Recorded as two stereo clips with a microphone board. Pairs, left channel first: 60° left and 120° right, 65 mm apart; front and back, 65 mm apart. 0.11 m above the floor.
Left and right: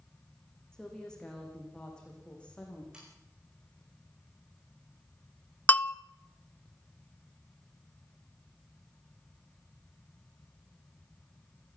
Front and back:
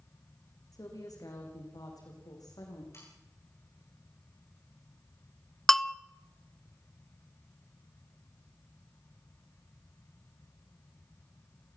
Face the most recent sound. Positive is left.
turn(degrees=75)